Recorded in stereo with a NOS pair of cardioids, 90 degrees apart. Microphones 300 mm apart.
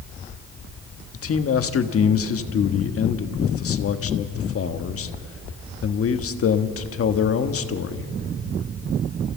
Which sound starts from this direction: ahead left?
A man speaking, at 1.1 s.